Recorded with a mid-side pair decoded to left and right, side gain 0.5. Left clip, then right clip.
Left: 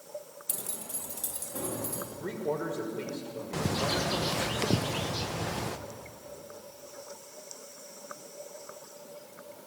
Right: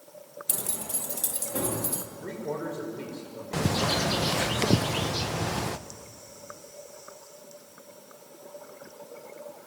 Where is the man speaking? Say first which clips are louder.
Left 2 dB; 20° left, 6 m.